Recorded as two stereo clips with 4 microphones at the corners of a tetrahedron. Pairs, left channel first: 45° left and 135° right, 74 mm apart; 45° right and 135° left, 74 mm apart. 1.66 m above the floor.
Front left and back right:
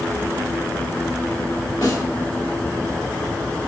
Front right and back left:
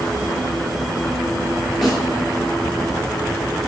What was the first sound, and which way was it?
A snare drum, 45° left.